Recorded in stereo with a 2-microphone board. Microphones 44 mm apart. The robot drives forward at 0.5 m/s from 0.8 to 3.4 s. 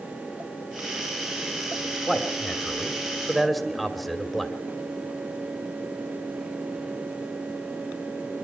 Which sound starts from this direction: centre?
A man speaking, at 2.1 s.